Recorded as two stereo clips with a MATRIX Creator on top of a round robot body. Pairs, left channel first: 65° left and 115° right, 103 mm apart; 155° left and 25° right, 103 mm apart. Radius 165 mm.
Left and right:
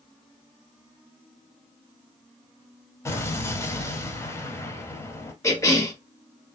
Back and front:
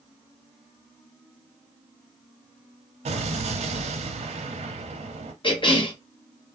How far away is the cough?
About 1.7 m.